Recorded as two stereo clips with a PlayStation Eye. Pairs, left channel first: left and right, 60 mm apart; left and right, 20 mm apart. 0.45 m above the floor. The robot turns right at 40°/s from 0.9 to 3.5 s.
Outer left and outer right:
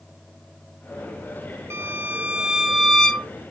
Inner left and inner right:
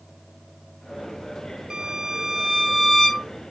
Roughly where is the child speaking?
I don't hear a child speaking.